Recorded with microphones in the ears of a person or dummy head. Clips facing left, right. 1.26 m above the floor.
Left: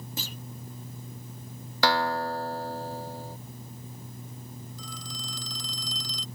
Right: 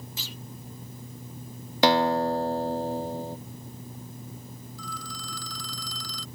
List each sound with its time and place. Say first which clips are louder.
0.2 s a clunk: left 3 dB; 45° left (ahead or behind)
1.8 s a guitar: right 5 dB; 15° right (ahead or behind)
4.8 s a phone ringing: right 2 dB; 20° left (ahead or behind)